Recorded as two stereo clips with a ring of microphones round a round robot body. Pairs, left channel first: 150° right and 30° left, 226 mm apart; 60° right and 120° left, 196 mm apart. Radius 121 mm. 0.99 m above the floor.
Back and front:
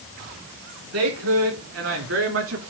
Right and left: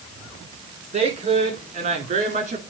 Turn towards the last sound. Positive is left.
turn(degrees=65)